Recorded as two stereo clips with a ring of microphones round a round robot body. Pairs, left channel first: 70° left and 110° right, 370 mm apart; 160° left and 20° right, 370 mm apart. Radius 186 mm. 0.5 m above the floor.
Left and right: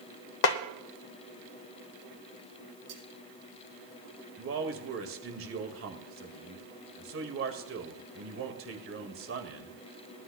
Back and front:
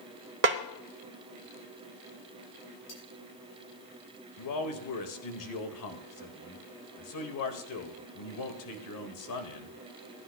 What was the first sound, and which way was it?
A snare drum, 35° left.